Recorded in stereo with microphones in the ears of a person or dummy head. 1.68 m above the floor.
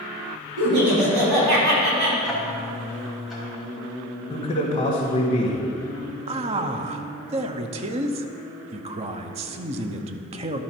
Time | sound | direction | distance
0.6 | laughter | 75° right (ahead or behind) | 3 m
2.2 | ticking | 5° right (ahead or behind) | 1.9 m
4.3 | a man speaking | 25° left (ahead or behind) | 1.6 m
6.3 | a man speaking | 30° right (ahead or behind) | 0.6 m